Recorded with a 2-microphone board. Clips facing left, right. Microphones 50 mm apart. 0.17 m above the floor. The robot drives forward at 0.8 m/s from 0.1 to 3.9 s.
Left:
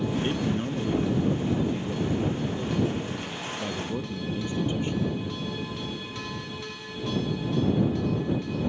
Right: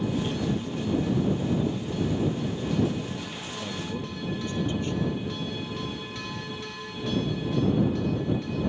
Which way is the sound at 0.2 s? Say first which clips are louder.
Left 2 dB; 50° left (ahead or behind).